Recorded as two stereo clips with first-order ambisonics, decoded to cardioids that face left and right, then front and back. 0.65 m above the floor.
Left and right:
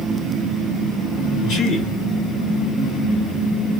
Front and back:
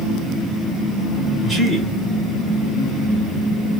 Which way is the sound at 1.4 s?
90° left.